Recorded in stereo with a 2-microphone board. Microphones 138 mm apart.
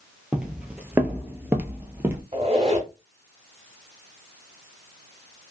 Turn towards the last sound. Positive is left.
turn(degrees=-45)  # may be behind; listen again after turning